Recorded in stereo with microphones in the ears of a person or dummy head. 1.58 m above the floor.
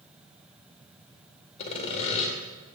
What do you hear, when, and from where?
1.6 s sawing: 35° left (ahead or behind), 1.8 m